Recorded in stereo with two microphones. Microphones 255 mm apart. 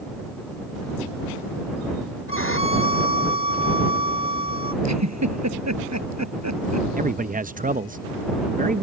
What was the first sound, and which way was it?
A violin, 50° left (ahead or behind).